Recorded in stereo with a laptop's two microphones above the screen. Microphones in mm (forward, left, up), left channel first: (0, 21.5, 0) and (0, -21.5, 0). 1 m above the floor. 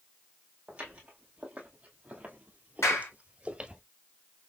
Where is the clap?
90° left, 3 m.